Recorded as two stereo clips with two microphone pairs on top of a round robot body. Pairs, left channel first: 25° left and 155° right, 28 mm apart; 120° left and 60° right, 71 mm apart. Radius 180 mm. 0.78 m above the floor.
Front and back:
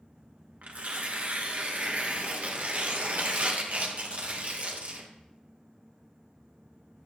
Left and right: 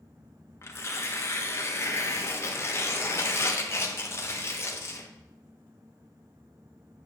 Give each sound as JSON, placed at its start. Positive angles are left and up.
{"t": 0.6, "sound": "tearing paper", "azimuth_deg": 165, "distance_m": 1.1}